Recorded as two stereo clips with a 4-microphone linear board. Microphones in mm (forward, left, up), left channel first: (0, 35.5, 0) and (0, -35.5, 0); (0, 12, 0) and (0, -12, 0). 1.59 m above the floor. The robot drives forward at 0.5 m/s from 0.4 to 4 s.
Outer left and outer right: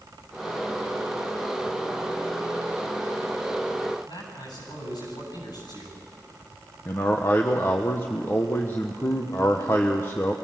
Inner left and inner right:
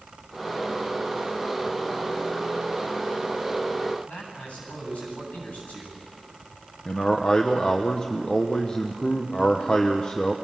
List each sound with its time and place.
4.0 s a man speaking: 75° left (ahead or behind), 9.5 m
6.8 s a man speaking: 35° left (ahead or behind), 1.1 m